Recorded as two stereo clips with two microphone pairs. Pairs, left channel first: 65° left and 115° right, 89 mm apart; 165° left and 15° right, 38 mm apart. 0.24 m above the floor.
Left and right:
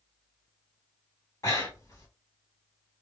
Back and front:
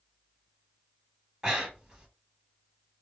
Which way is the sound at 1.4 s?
45° left.